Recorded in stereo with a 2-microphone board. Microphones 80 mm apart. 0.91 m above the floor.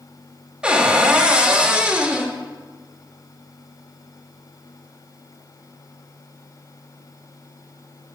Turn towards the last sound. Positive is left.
turn(degrees=-15)  # may be behind; listen again after turning